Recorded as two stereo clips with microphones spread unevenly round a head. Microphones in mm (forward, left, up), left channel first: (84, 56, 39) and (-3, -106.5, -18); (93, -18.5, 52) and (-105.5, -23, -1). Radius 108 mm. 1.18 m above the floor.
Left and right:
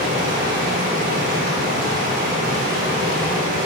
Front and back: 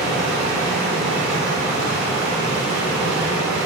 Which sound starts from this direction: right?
Running water, at 0.0 s.